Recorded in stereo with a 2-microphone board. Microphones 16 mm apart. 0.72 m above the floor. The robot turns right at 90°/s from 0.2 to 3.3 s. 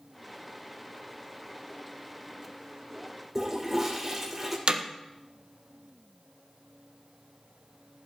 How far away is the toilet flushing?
About 3 m.